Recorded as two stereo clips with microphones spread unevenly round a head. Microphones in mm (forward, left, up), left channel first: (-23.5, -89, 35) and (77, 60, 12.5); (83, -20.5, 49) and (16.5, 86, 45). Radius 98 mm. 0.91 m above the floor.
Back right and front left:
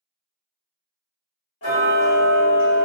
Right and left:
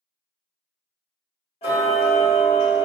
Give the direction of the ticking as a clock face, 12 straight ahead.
4 o'clock.